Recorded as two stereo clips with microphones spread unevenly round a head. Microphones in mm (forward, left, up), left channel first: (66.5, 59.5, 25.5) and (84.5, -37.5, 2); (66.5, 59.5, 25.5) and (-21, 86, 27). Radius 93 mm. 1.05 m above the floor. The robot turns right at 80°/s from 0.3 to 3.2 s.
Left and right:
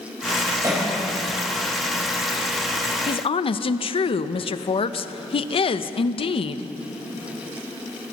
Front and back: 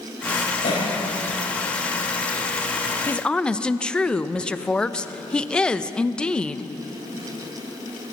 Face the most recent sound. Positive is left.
turn(degrees=65)